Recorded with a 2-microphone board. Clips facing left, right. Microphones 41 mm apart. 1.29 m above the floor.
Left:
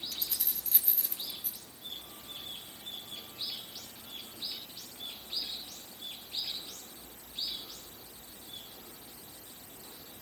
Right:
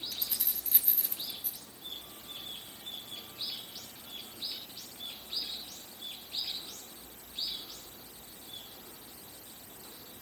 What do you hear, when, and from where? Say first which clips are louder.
0.1 s keys jangling: even; 10° right (ahead or behind), 6 m; by 1.6 s 5° right (ahead or behind), 5 m